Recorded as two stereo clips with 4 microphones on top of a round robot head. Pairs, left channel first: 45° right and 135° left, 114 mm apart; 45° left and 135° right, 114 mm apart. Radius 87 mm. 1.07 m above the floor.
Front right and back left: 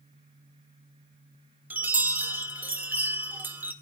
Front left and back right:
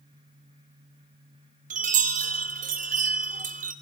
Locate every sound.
1.7 s a chime: 150° right, 1.8 m